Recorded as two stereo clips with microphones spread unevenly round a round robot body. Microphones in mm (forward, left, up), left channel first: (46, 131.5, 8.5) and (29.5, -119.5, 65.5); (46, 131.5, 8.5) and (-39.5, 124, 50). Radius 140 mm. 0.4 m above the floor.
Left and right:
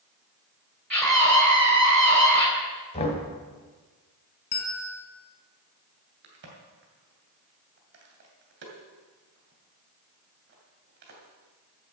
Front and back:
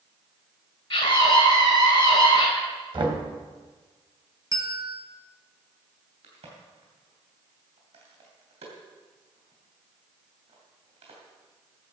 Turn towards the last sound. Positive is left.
turn(degrees=-145)